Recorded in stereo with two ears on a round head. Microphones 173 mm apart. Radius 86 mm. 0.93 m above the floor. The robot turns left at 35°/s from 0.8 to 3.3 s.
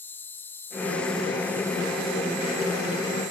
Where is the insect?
15° left; by 3.3 s 75° right.